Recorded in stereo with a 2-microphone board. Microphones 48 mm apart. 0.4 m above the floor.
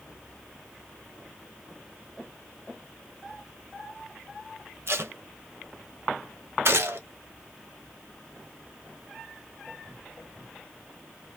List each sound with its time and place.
4.9 s tape being pulled: 60° right (ahead or behind), 0.7 m
6.7 s a gunshot: 60° right (ahead or behind), 1.3 m